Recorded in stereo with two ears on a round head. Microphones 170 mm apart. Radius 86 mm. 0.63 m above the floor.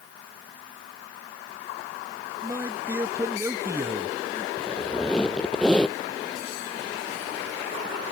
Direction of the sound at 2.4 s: 15° right (ahead or behind).